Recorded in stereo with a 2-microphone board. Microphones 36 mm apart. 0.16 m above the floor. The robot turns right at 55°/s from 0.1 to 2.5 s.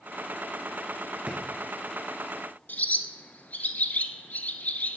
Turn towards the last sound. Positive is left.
turn(degrees=50)  # may be behind; listen again after turning